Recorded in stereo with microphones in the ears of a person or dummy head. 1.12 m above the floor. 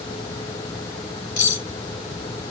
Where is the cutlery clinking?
60° left (ahead or behind), 3 m.